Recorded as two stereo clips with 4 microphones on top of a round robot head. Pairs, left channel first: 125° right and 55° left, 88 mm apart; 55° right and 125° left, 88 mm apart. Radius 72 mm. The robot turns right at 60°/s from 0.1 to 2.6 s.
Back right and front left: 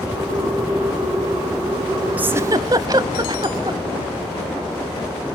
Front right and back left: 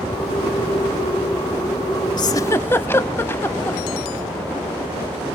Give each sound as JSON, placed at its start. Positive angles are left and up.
{"t": 2.2, "sound": "a giggle", "azimuth_deg": -15, "distance_m": 0.6}